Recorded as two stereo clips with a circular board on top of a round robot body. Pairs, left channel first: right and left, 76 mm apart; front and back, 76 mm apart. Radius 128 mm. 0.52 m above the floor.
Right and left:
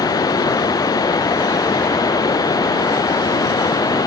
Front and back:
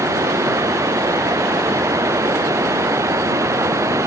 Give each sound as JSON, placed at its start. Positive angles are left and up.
{"t": 0.0, "sound": "running water", "azimuth_deg": -130}